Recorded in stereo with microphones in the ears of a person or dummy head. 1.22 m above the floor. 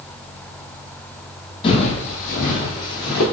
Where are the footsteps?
30° left (ahead or behind), 1.9 m; by 3.2 s 55° left (ahead or behind), 4 m.